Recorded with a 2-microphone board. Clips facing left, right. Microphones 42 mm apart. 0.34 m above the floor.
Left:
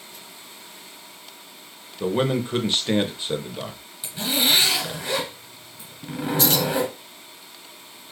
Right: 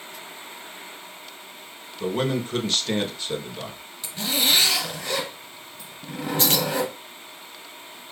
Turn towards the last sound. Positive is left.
turn(degrees=-35)  # may be behind; listen again after turning